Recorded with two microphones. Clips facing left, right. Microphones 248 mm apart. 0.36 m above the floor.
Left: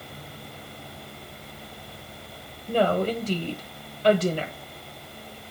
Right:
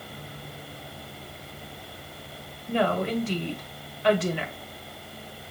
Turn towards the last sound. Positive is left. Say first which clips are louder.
# left 2 dB
turn(degrees=45)  # may be behind; listen again after turning